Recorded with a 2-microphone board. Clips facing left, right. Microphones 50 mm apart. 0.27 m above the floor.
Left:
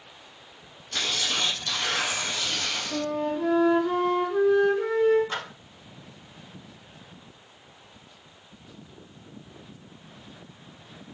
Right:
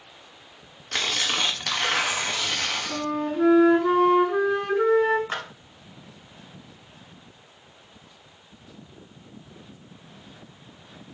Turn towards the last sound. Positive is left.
turn(degrees=-30)  # may be behind; listen again after turning